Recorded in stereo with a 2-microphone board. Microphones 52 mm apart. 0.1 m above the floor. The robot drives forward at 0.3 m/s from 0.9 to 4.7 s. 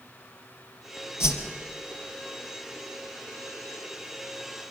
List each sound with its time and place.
1.2 s a whoosh: 55° left (ahead or behind), 2.5 m